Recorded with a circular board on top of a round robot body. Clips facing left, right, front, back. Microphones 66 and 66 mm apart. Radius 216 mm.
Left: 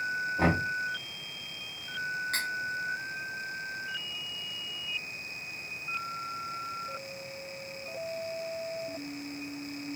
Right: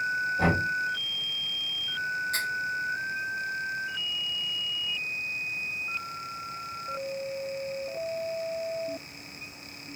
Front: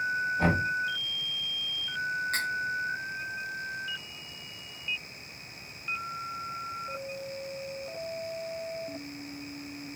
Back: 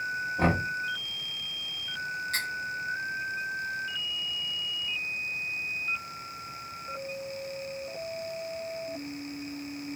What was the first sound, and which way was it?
Knocking, 145° left.